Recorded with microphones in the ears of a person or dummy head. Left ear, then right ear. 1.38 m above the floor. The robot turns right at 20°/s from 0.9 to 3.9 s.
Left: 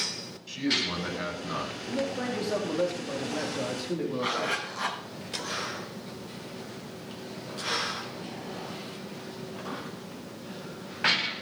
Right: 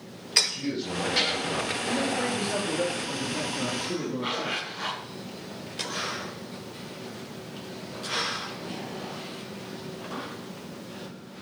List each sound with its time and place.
0.5 s a man speaking: 70° left (ahead or behind), 8.5 m; by 1.8 s 85° left, 8.5 m
1.9 s a man speaking: 5° right, 3 m; by 4.6 s 35° left, 3 m
4.2 s a zipper: 40° left (ahead or behind), 7 m